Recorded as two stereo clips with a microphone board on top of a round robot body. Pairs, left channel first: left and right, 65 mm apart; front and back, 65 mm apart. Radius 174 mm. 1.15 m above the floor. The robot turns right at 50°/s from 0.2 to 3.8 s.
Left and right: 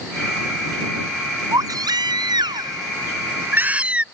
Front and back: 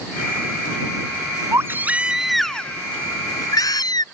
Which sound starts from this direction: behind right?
A baby crying, at 1.5 s.